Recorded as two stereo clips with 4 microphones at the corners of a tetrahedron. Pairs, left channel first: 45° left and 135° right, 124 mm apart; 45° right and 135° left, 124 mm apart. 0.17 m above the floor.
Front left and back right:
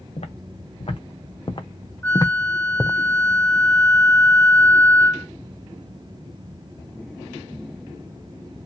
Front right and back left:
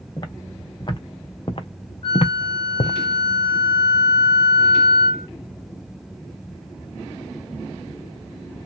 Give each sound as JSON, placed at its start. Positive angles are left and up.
{"t": 0.2, "sound": "footsteps", "azimuth_deg": 10, "distance_m": 1.6}
{"t": 2.0, "sound": "a flute", "azimuth_deg": -20, "distance_m": 1.1}